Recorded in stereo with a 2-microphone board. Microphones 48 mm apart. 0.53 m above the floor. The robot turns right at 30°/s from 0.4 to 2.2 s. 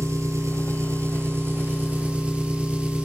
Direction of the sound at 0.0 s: 80° right.